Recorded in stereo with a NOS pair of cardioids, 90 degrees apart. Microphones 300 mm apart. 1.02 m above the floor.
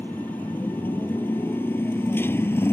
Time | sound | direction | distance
0.0 | a motorcycle | 5° left | ?